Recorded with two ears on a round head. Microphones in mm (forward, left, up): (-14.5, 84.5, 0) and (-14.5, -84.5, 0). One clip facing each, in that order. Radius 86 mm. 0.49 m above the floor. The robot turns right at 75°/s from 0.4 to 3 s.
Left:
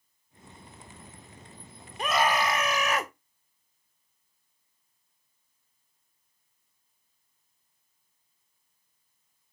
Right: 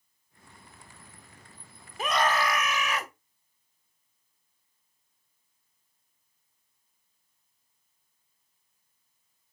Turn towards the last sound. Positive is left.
turn(degrees=70)